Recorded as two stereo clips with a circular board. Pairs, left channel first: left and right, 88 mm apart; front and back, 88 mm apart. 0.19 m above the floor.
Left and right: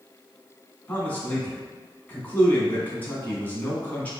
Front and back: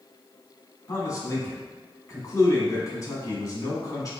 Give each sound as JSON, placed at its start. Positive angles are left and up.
{"t": 0.9, "sound": "a man speaking", "azimuth_deg": 30, "distance_m": 1.3}